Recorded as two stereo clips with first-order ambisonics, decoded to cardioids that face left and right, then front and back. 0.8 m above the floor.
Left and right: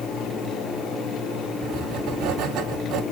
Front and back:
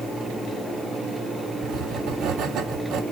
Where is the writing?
130° right, 0.9 m.